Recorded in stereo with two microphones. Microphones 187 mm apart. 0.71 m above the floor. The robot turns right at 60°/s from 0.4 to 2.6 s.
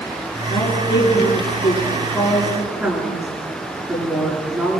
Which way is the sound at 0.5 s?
65° left (ahead or behind).